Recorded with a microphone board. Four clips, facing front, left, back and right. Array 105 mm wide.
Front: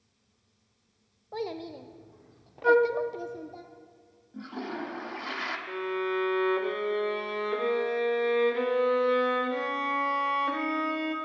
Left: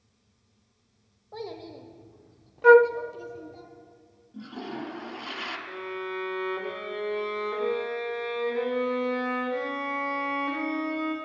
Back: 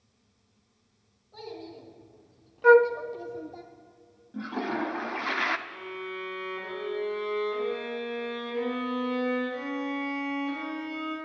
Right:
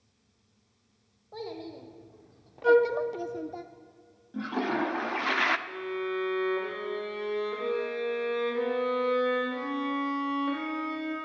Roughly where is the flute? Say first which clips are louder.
Left 6 dB, back 4 dB; behind left.